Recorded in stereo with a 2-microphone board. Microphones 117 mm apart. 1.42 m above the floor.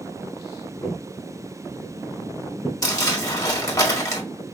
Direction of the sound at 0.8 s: 10° left (ahead or behind).